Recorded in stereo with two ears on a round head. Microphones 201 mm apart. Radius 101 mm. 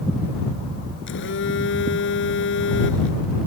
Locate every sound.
1.1 s a phone buzzing: 55° left (ahead or behind)